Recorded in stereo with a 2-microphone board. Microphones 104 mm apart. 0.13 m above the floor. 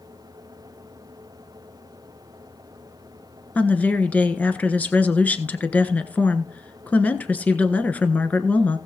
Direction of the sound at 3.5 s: 15° left (ahead or behind).